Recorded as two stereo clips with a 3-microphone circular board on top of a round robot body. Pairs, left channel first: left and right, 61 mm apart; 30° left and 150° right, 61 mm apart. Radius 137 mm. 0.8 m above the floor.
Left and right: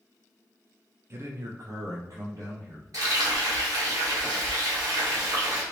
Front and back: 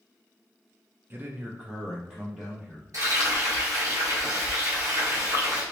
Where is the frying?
120° right, 1.9 m.